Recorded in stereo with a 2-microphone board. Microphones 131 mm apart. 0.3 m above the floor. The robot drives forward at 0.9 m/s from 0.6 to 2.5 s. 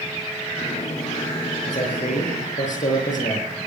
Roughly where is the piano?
No piano in this recording.